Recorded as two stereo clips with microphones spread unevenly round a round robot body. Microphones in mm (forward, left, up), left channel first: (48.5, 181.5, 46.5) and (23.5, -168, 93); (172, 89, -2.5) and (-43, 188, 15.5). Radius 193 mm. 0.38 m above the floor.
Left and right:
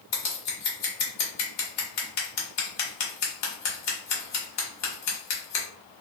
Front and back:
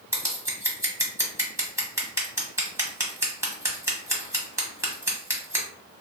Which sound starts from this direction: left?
Scissors, at 0.1 s.